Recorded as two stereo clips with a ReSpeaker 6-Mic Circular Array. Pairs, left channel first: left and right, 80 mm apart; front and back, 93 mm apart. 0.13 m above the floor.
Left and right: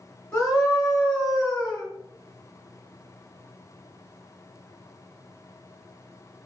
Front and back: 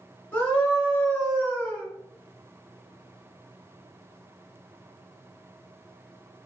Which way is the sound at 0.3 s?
55° left.